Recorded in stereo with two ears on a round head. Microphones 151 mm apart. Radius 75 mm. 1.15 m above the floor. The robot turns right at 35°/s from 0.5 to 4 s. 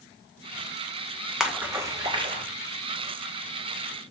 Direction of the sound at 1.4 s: 5° right (ahead or behind).